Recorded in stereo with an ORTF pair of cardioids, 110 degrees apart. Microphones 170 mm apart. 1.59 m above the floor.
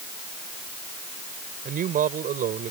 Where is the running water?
No running water in this recording.